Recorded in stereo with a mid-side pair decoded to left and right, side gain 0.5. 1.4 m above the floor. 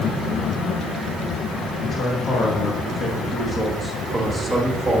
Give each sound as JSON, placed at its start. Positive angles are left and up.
{"t": 1.8, "sound": "a man speaking", "azimuth_deg": 45, "distance_m": 2.0}